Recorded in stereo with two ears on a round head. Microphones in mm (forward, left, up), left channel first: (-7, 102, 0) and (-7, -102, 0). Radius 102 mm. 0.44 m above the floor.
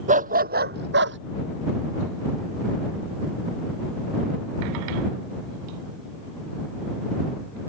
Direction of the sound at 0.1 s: 35° right (ahead or behind).